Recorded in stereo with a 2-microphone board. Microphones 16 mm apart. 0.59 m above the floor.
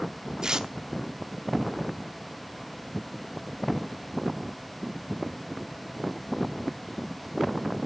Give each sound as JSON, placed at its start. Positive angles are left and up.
{"t": 0.4, "sound": "tearing paper", "side_deg": -50, "distance_m": 0.8}